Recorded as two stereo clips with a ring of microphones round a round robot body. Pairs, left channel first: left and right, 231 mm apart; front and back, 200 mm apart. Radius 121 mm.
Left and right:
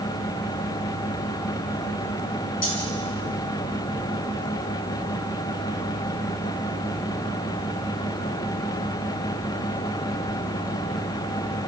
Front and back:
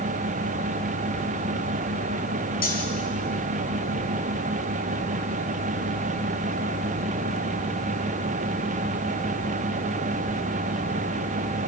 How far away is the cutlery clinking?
About 5.5 m.